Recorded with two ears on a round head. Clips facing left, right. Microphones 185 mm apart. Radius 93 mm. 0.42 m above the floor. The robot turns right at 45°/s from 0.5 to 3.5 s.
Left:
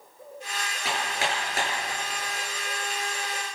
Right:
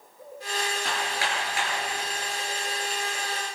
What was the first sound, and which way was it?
Hammering, 5° left (ahead or behind).